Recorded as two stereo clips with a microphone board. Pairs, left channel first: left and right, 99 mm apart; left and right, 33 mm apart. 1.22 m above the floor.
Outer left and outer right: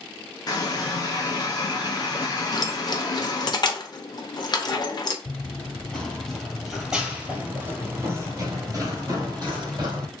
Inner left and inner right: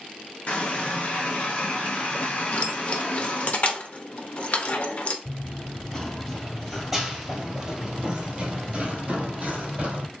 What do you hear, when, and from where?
0.5 s a running tap: 40° left (ahead or behind), 0.9 m
2.5 s keys jangling: 45° left (ahead or behind), 0.7 m
5.2 s running footsteps: 20° left (ahead or behind), 1.5 m; by 10.1 s 45° right (ahead or behind), 1.9 m